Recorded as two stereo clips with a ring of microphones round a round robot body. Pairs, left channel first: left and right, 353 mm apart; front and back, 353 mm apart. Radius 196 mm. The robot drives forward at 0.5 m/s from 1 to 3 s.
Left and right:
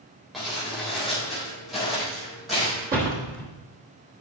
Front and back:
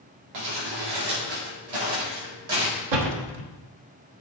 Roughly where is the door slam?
Behind.